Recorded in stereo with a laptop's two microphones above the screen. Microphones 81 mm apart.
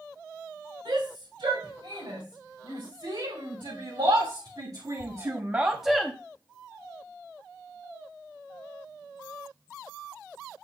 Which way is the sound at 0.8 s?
80° right.